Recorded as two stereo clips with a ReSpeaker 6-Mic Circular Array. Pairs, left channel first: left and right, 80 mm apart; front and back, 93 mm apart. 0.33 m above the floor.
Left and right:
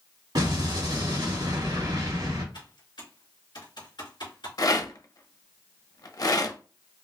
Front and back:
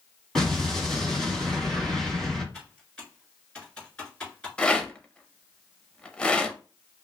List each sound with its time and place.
0.3 s an explosion: 85° right, 1.7 m
2.5 s typing on a keyboard: 80° left, 2 m
4.6 s a rattle: 75° left, 0.5 m